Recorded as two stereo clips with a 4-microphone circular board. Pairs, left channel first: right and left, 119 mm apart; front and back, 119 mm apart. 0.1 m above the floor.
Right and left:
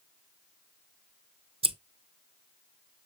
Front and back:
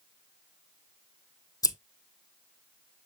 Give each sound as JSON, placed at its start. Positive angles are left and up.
{"t": 1.6, "sound": "scissors", "azimuth_deg": 55, "distance_m": 0.6}